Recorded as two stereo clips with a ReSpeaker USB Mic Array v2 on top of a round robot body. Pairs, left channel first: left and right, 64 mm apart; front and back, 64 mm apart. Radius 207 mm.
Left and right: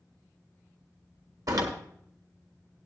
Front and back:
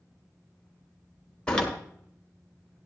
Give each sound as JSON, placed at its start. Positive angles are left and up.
{"t": 1.5, "sound": "a door slam", "azimuth_deg": -75, "distance_m": 1.8}